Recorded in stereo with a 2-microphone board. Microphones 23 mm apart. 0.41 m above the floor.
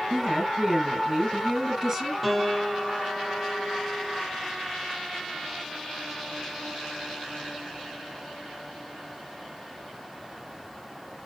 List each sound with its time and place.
0.1 s a woman speaking: 25° right (ahead or behind), 7 m
2.2 s a piano: 10° right (ahead or behind), 2.5 m